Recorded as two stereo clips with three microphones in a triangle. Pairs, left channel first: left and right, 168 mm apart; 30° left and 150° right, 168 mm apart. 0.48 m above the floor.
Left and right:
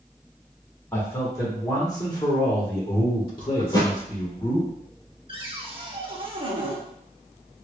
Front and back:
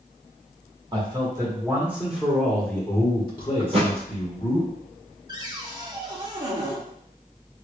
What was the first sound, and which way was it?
A man speaking, 160° left.